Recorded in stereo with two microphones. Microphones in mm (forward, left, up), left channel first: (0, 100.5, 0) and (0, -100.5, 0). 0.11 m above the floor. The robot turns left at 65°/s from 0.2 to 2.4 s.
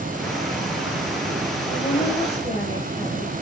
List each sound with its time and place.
1.7 s a woman speaking: 75° left, 3 m; by 3.3 s 30° left, 3 m